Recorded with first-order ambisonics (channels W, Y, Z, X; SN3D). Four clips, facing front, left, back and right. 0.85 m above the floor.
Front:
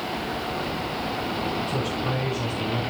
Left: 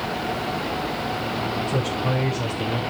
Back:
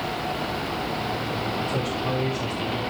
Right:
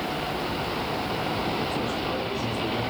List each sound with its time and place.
1.7 s a man speaking: 75° left, 8.5 m; by 2.8 s 80° left, 8.5 m